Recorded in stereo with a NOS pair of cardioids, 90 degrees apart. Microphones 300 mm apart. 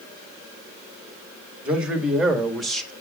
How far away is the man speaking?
About 2 m.